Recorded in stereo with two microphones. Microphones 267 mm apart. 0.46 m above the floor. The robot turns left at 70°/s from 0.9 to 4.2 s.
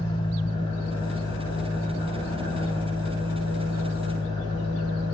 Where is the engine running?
95° left, 2 m; by 5.1 s 140° right, 2 m.